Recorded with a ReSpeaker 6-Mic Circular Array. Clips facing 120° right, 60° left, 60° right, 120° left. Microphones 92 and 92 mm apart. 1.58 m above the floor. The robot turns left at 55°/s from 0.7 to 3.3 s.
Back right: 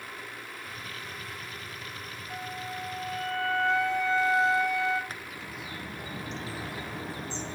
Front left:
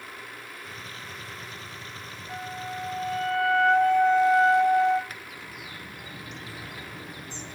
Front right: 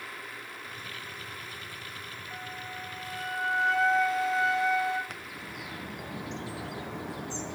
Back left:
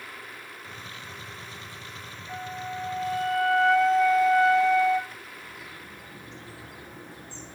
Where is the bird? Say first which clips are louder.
Back right 1 dB, front right 2 dB; 65° right, 0.9 m.